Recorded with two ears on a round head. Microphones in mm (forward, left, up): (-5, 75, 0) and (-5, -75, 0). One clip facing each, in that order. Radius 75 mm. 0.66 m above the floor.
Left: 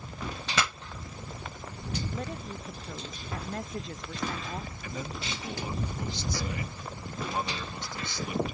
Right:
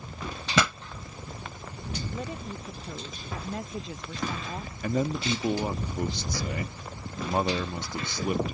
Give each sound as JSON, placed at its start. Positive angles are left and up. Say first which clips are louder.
{"t": 0.6, "sound": "a pop", "louder": "right 6 dB", "side_deg": -75}
{"t": 2.1, "sound": "a woman speaking", "louder": "right 1 dB", "side_deg": -5}
{"t": 4.8, "sound": "a man speaking", "louder": "right 16 dB", "side_deg": -40}